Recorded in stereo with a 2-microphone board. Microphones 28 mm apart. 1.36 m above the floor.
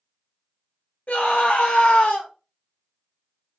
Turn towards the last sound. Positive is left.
turn(degrees=80)